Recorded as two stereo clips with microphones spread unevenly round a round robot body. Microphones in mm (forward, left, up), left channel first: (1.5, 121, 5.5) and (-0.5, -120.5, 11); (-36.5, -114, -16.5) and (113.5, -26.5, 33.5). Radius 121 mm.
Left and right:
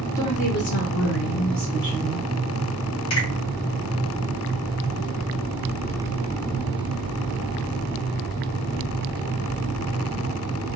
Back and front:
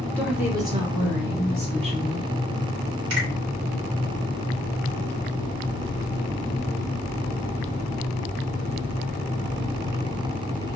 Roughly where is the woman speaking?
Behind left.